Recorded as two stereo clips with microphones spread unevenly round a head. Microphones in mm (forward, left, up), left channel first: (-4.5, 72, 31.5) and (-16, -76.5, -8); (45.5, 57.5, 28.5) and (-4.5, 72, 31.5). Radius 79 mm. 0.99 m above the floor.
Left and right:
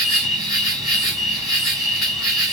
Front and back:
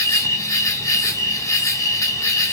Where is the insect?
10° right, 1.6 m.